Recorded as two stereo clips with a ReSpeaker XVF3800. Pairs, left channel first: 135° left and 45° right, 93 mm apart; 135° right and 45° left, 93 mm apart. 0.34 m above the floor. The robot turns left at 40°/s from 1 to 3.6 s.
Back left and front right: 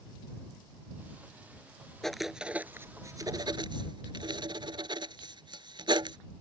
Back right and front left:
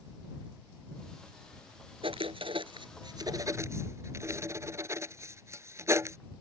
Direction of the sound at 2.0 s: 50° left.